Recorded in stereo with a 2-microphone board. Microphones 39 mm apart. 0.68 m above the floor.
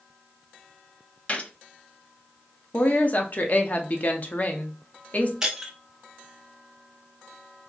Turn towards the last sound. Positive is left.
turn(degrees=-15)  # may be behind; listen again after turning